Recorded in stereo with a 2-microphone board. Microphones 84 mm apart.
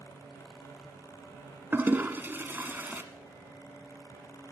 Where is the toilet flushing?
25° right (ahead or behind), 1.0 m.